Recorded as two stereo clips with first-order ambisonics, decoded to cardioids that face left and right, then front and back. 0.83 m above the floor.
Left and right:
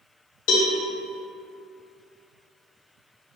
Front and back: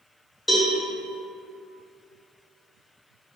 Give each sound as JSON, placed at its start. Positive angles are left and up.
{"t": 0.5, "sound": "a cowbell", "azimuth_deg": 80, "distance_m": 0.5}